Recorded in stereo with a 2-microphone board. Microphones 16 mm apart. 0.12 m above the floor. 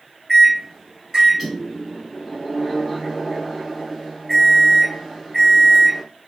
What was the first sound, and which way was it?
A microwave, 20° right (ahead or behind).